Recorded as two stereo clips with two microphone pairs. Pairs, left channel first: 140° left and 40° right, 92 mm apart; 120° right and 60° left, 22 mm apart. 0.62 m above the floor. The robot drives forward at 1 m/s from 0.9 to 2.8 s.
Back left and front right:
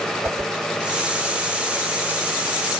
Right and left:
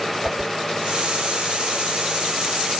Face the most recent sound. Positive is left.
turn(degrees=180)